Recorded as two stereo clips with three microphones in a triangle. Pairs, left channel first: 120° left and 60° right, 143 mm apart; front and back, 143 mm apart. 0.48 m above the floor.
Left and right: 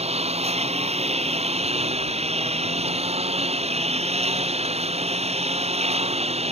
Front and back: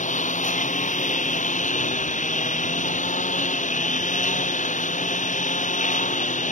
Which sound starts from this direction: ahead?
A lawn mower, at 0.0 s.